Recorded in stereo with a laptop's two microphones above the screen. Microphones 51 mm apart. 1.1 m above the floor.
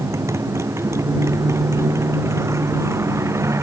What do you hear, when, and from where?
0.0 s a motorcycle: 65° right (ahead or behind)